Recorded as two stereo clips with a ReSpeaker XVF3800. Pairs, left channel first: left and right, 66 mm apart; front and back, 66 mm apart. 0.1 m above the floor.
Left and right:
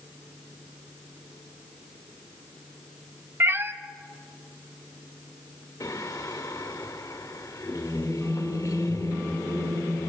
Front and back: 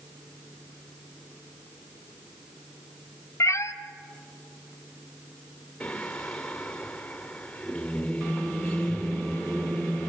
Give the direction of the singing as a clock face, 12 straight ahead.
9 o'clock.